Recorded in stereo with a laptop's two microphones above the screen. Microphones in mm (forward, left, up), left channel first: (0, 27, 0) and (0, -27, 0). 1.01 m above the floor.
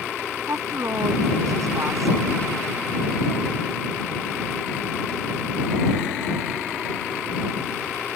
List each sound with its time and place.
0.5 s a woman speaking: 85° right